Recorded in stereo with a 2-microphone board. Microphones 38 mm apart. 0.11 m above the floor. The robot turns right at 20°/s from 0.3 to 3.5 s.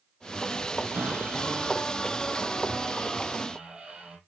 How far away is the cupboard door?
About 3 m.